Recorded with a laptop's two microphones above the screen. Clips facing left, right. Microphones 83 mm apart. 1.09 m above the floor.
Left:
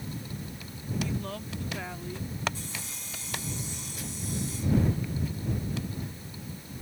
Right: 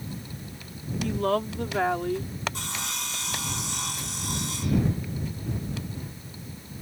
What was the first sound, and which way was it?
A woman speaking, 75° right (ahead or behind).